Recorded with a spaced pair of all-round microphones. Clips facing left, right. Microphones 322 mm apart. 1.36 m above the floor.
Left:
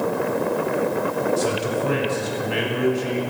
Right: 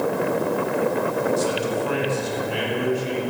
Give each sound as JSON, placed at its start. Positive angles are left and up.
{"t": 1.4, "sound": "a man speaking", "side_deg": 85, "distance_m": 7.0}